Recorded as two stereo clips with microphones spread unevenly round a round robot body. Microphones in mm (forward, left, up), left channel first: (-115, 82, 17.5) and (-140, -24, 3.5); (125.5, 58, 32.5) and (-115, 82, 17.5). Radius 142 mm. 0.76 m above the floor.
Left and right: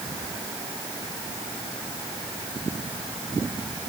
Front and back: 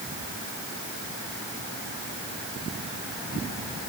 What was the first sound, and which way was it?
Only background noise.